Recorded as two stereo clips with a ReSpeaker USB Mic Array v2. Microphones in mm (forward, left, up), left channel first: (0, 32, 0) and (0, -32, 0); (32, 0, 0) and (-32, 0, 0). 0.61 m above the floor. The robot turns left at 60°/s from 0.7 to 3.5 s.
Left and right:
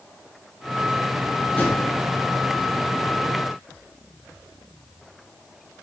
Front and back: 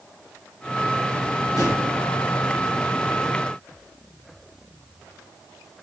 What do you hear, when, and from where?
1.6 s a drawer: 30° left, 1.1 m; by 1.8 s 15° left, 1.1 m